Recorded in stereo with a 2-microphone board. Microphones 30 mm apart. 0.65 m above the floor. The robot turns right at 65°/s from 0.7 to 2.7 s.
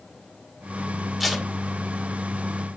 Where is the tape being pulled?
Centre (ahead or behind), 1.5 m; by 1.5 s 15° right (ahead or behind), 1.5 m.